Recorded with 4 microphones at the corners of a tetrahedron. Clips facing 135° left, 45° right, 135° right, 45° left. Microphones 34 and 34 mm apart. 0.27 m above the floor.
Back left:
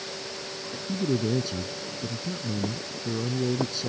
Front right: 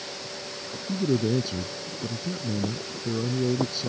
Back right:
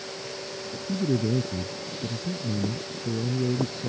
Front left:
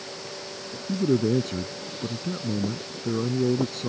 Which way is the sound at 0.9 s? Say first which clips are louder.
Front right 2 dB, front left 3 dB; 35° left.